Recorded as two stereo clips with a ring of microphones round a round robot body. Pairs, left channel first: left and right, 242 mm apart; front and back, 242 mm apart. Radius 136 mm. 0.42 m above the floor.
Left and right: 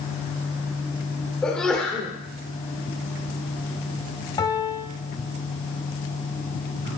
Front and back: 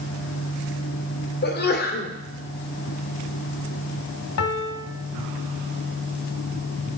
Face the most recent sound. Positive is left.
turn(degrees=15)